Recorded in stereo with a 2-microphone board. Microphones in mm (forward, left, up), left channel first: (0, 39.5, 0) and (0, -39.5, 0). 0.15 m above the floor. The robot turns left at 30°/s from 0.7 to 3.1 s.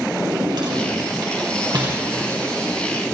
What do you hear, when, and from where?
0.1 s a drawer: 65° right (ahead or behind), 2.5 m; by 2.0 s 60° right (ahead or behind), 2.5 m